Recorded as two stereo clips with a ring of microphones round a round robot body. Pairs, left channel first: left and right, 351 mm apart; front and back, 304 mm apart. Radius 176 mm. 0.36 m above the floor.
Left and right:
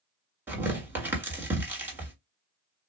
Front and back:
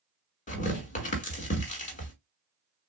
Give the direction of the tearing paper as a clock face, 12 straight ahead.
12 o'clock.